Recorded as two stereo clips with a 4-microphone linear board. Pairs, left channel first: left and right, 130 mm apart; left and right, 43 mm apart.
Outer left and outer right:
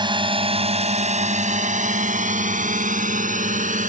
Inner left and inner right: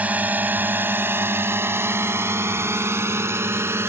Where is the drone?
35° right (ahead or behind); by 3.9 s 80° right.